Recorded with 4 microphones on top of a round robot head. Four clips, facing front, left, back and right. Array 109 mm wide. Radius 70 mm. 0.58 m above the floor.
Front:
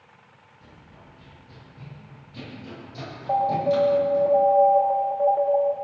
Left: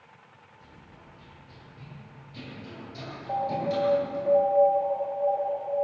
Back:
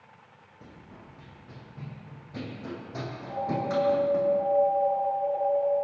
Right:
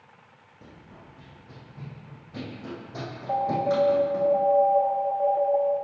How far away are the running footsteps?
About 5.5 m.